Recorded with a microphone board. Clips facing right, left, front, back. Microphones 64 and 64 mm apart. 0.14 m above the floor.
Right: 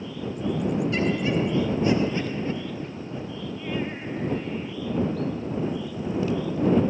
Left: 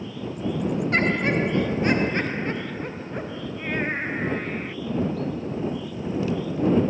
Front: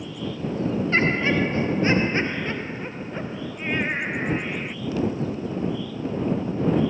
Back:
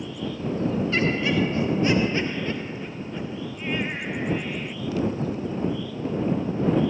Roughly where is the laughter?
Ahead left.